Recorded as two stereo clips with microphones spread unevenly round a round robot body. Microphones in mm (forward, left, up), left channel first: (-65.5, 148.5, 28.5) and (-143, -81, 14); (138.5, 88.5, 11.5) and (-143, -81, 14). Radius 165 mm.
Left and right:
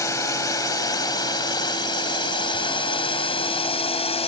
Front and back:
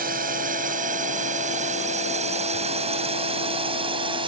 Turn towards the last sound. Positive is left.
turn(degrees=135)